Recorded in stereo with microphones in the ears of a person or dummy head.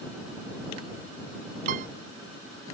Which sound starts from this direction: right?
A piano, at 1.7 s.